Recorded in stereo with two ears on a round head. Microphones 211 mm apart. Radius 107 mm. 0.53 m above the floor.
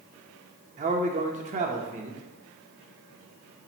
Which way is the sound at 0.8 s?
30° right (ahead or behind).